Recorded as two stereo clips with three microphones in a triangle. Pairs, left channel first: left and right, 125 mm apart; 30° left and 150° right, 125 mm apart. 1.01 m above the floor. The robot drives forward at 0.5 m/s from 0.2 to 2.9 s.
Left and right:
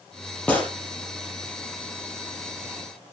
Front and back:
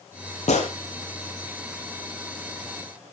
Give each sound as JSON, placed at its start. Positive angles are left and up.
{"t": 0.5, "sound": "a gunshot", "azimuth_deg": 10, "distance_m": 4.5}